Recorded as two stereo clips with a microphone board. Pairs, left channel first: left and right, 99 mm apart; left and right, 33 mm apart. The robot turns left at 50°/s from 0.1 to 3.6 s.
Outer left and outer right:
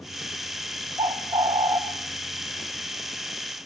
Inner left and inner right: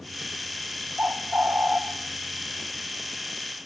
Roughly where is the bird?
Right.